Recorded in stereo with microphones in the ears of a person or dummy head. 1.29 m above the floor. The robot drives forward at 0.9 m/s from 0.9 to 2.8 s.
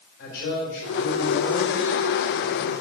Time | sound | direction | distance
0.2 | a man speaking | 60° left (ahead or behind) | 4.5 m